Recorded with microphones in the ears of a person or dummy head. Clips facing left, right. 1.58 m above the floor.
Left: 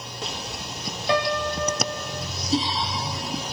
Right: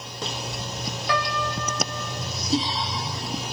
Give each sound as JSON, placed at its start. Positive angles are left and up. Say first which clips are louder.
{"t": 1.1, "sound": "a piano", "louder": "left 4 dB", "side_deg": 25, "distance_m": 3.0}